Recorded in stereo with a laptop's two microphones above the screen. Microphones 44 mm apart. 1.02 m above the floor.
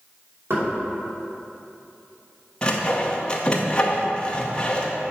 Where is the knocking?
60° right (ahead or behind), 2.5 m.